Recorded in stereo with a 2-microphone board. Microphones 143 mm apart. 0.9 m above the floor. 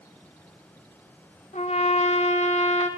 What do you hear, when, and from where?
1.5 s a trumpet: 55° left (ahead or behind), 0.6 m